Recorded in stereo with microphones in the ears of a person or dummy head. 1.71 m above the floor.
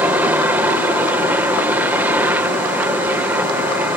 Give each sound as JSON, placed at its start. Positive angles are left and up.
{"t": 0.0, "sound": "a helicopter", "side_deg": -10}